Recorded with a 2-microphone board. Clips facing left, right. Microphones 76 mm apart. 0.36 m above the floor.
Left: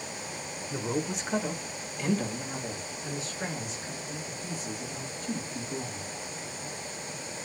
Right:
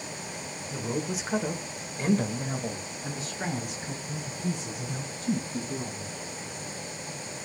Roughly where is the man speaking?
Centre.